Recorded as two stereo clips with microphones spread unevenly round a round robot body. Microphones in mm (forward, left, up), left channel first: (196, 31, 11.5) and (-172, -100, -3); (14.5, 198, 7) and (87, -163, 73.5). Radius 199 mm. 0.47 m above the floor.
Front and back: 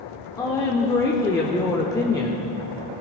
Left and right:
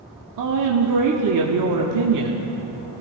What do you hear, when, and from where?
0.4 s a woman speaking: 60° right, 1.1 m